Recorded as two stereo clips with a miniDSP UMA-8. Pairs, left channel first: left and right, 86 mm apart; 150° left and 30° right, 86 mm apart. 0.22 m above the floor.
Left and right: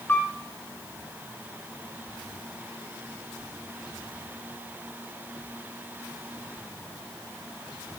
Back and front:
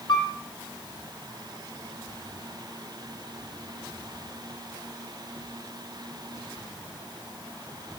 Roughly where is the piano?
Behind left.